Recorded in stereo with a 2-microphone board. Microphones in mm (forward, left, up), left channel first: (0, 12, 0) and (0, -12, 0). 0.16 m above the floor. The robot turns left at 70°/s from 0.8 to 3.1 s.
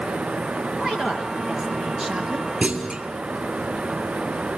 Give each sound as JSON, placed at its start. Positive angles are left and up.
{"t": 0.8, "sound": "a woman speaking", "azimuth_deg": -40, "distance_m": 3.0}
{"t": 2.6, "sound": "a clunk", "side_deg": -55, "distance_m": 1.7}